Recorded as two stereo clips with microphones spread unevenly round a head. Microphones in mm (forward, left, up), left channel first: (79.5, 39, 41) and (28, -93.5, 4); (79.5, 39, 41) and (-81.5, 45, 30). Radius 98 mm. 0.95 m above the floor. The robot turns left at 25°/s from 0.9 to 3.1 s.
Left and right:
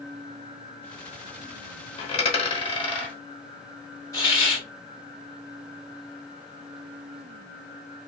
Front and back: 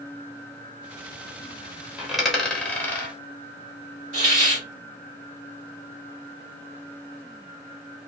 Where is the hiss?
150° left, 1.5 m.